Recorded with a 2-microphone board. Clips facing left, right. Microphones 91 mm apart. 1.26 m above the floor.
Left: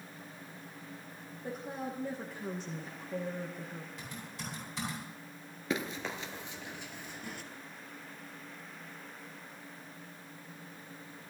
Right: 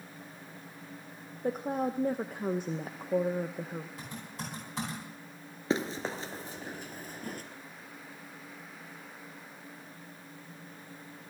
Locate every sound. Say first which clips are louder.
1.4 s a woman speaking: right 8 dB; 50° right (ahead or behind), 0.8 m
4.0 s typing on a keyboard: right 2 dB; 45° right (ahead or behind), 10 m
5.7 s running footsteps: right 4 dB; 30° right (ahead or behind), 1.4 m; by 7.4 s 45° right (ahead or behind), 1.8 m